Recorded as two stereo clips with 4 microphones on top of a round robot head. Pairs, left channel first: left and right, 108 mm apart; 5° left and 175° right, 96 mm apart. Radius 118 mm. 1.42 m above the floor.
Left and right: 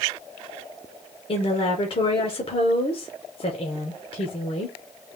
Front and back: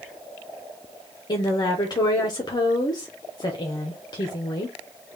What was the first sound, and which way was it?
A woman speaking, 50° left.